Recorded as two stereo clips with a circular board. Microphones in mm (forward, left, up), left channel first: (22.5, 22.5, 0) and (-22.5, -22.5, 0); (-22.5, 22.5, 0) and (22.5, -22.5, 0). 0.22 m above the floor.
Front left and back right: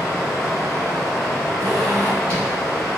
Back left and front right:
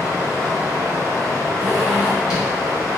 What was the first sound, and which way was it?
Running water, 40° right.